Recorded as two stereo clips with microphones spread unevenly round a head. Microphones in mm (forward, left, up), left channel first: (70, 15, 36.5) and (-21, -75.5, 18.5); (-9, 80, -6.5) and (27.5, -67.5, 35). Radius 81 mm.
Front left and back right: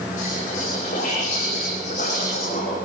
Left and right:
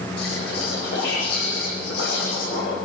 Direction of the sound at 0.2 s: 90° left.